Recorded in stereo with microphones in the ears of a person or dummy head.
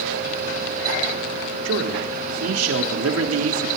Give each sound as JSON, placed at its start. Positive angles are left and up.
{"t": 1.6, "sound": "a man speaking", "side_deg": -70, "distance_m": 4.0}